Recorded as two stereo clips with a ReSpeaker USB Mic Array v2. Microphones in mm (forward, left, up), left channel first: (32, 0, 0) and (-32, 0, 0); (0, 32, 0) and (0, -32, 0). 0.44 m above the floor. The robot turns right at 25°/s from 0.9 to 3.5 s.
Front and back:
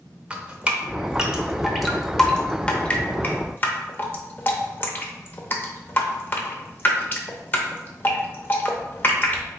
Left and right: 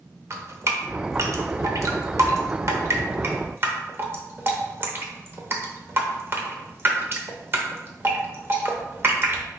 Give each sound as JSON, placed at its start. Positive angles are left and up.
{"t": 0.3, "sound": "dripping", "azimuth_deg": -115, "distance_m": 0.7}